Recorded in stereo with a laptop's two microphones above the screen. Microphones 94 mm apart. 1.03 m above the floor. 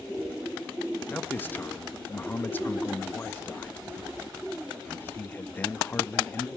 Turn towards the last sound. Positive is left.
turn(degrees=20)  # may be behind; listen again after turning